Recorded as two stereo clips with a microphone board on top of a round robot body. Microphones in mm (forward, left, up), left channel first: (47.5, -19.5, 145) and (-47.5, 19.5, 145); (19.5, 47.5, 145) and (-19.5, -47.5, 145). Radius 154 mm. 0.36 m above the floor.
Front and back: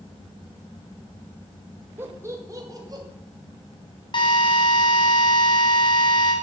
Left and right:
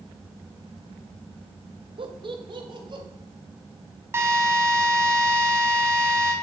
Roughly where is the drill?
Ahead right.